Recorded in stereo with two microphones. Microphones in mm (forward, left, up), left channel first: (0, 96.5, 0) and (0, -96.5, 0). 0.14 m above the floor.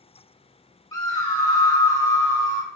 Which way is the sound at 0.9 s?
20° left (ahead or behind).